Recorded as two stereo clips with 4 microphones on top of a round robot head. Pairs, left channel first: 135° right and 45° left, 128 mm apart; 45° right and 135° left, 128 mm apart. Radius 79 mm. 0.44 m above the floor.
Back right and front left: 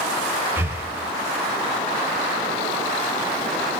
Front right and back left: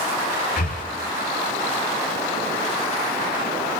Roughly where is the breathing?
Ahead right.